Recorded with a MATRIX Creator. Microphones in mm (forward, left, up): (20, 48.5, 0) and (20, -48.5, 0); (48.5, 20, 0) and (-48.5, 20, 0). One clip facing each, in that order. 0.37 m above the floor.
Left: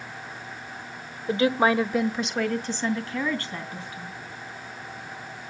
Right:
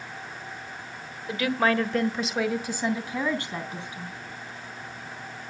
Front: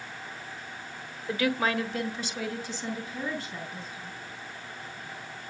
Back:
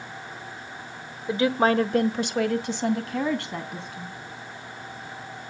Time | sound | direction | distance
1.3 | a woman speaking | 120° left | 1.2 m